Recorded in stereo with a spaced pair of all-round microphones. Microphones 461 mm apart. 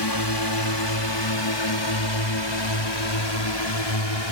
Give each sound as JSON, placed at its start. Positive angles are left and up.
{"t": 0.0, "sound": "a drone", "side_deg": 60}